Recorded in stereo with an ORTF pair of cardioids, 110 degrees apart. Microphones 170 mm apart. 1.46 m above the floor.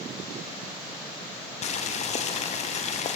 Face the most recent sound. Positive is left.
turn(degrees=40)